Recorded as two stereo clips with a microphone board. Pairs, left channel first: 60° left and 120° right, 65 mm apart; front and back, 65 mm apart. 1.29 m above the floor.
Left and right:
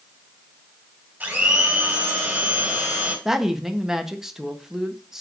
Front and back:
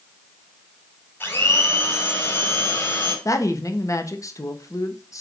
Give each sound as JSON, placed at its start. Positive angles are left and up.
{"t": 1.2, "sound": "a blender", "azimuth_deg": -55, "distance_m": 4.5}
{"t": 3.2, "sound": "a woman speaking", "azimuth_deg": -35, "distance_m": 1.3}